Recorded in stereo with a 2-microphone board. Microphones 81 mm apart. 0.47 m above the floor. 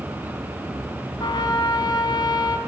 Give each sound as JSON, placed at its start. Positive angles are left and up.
{"t": 1.2, "sound": "a trumpet", "side_deg": 65, "distance_m": 3.0}